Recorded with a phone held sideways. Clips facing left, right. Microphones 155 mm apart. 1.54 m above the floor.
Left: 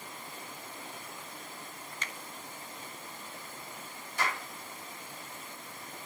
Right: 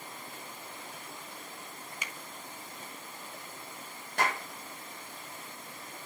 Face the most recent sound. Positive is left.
turn(degrees=-70)  # may be behind; listen again after turning